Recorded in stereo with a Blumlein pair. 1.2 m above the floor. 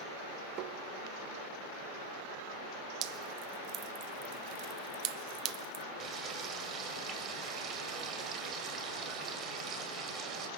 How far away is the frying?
About 2.5 m.